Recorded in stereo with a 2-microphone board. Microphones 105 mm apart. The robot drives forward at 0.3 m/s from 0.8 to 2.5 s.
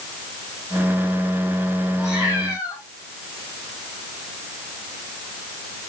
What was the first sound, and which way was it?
A cat meowing, 30° left (ahead or behind).